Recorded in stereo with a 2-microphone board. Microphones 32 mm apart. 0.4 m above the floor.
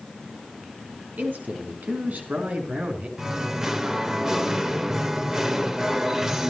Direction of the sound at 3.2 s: 20° right (ahead or behind).